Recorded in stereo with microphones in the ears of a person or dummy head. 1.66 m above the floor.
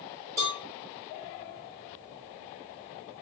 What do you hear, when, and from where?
0.4 s a cowbell: 15° right (ahead or behind), 0.9 m